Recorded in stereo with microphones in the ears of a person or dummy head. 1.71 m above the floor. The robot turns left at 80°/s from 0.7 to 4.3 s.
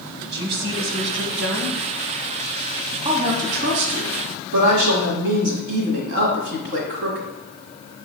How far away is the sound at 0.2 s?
About 1.3 m.